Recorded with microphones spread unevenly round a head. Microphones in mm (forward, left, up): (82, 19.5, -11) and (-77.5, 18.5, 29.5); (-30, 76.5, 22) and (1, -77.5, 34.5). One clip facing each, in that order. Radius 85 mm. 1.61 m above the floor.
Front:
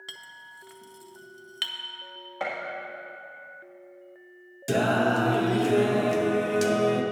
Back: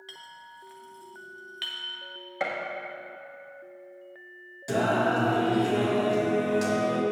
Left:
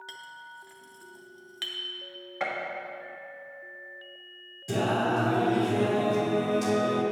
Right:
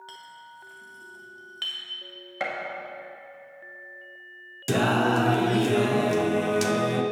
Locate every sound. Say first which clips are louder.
0.1 s a clink: back 3 dB, right 1 dB; 20° left, 0.8 m
2.4 s a gunshot: back 1 dB, right 1 dB; 120° right, 1.5 m
4.7 s singing: front 1 dB, right 4 dB; 60° right, 0.7 m